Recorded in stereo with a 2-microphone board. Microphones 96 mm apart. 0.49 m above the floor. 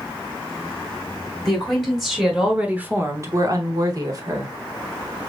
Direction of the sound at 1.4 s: 5° left (ahead or behind).